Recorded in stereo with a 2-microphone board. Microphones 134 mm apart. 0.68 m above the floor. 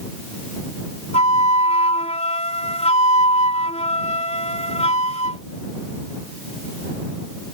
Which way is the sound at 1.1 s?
55° left (ahead or behind).